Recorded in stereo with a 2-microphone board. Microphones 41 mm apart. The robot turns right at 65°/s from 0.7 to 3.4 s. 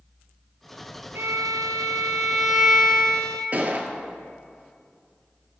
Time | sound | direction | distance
1.1 | a violin | 95° right | 0.8 m
3.5 | a gunshot | 45° right (ahead or behind) | 0.6 m